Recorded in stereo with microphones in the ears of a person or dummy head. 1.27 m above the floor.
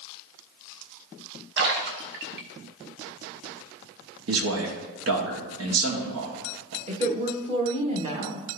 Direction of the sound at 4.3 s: 70° right (ahead or behind).